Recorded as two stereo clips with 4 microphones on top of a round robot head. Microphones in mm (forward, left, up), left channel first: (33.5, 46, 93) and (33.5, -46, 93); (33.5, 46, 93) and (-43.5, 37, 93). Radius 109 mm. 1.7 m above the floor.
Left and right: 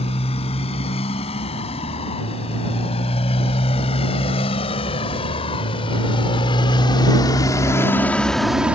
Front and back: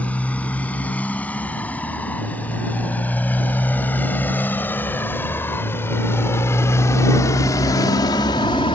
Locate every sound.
0.0 s a motorcycle: 80° left; by 8.8 s 20° right